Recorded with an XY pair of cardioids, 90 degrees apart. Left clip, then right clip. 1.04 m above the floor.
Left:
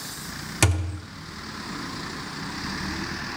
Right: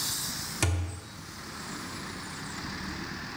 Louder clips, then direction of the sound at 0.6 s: Left 10 dB; 60° left.